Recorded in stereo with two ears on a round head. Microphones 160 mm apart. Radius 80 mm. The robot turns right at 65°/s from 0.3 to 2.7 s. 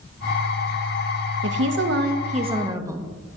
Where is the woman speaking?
100° right, 0.9 m; by 3.1 s 20° right, 0.9 m.